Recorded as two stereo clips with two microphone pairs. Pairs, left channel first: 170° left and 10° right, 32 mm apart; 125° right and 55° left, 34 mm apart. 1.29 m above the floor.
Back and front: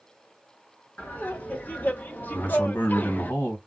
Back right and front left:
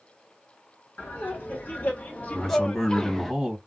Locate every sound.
1.0 s laughter: 160° right, 1.5 m; by 3.3 s 150° left, 0.5 m
2.3 s a man speaking: 150° left, 1.4 m